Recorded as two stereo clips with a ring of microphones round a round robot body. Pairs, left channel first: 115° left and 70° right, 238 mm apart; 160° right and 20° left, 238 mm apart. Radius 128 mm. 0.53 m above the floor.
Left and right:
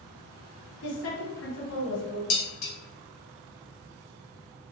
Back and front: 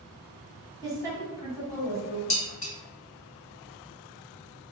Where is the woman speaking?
125° left, 1.3 m.